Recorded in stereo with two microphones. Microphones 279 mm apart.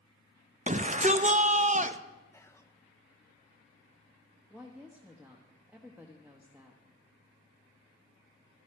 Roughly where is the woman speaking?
Centre.